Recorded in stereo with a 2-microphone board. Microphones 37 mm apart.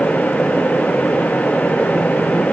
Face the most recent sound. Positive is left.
No sound to turn to.